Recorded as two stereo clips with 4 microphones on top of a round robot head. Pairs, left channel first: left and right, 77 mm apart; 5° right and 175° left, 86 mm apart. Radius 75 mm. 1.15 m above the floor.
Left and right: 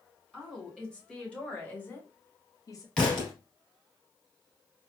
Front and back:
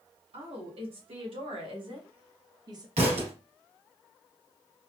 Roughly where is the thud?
Behind.